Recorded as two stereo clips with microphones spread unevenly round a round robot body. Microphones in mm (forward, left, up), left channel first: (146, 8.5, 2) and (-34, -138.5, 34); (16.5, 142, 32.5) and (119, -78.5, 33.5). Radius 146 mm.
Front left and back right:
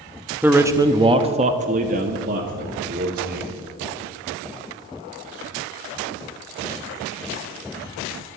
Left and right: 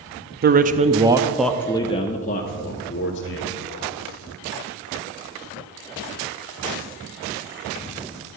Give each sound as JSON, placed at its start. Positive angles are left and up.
{"t": 0.4, "sound": "a man speaking", "azimuth_deg": -50, "distance_m": 0.8}